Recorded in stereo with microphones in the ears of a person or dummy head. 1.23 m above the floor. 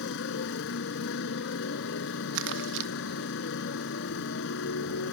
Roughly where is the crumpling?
Right.